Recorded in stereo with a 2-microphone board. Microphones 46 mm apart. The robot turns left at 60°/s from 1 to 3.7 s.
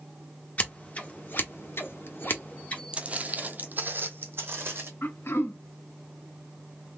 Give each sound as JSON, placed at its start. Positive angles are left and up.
{"t": 0.6, "sound": "scissors", "side_deg": 35, "distance_m": 0.9}
{"t": 2.9, "sound": "footsteps", "side_deg": -25, "distance_m": 0.7}
{"t": 5.0, "sound": "throat clearing", "side_deg": 55, "distance_m": 0.6}